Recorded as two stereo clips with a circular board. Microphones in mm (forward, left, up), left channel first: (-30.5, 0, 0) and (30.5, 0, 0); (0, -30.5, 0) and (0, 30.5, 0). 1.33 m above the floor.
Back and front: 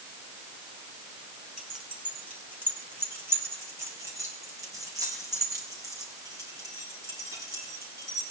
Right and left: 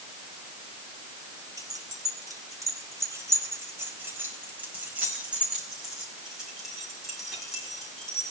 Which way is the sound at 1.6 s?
75° left.